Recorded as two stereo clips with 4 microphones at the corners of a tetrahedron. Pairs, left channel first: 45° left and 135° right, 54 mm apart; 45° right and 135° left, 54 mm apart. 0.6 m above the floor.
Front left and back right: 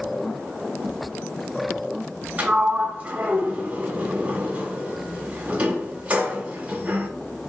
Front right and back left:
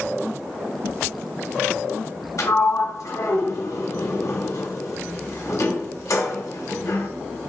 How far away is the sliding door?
About 0.9 m.